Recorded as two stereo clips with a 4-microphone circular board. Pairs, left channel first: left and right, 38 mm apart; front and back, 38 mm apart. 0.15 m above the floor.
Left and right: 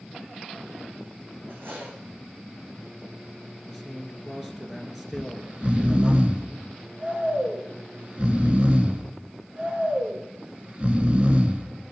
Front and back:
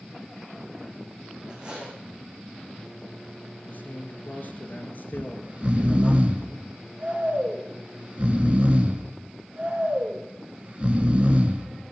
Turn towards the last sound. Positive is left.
turn(degrees=-135)